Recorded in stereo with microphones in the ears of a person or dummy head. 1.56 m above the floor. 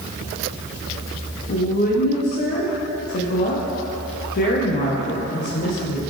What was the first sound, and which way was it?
A woman speaking, 45° left (ahead or behind).